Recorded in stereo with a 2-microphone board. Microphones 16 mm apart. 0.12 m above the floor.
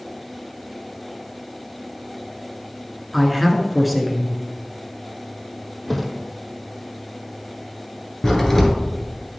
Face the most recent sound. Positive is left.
turn(degrees=25)  # may be behind; listen again after turning